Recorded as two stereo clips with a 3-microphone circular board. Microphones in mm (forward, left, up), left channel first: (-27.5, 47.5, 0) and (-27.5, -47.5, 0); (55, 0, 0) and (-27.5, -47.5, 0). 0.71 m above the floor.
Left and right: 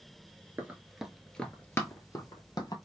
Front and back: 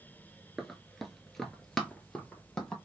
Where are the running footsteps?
65° right, 0.7 m; by 2.8 s 105° left, 1.0 m.